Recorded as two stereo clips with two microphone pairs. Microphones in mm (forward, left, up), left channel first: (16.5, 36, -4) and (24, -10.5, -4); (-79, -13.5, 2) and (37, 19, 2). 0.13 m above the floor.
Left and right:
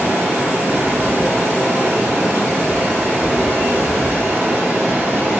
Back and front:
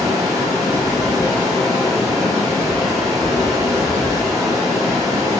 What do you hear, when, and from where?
0.0 s running water: 45° right, 1.4 m